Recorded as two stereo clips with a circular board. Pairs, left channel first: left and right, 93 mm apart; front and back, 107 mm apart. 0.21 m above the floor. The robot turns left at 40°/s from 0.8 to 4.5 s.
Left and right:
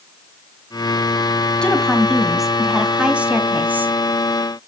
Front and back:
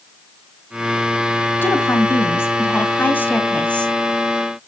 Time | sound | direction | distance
1.6 | a woman speaking | 25° left | 1.4 m